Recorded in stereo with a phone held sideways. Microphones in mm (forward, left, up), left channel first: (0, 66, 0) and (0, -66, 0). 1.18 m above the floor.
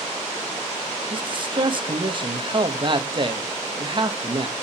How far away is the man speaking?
About 1.5 m.